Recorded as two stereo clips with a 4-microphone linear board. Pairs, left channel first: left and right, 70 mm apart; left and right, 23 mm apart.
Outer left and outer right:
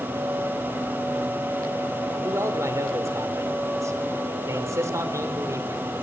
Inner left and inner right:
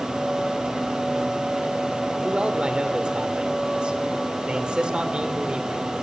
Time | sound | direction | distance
2.2 | a man speaking | 45° right (ahead or behind) | 3 m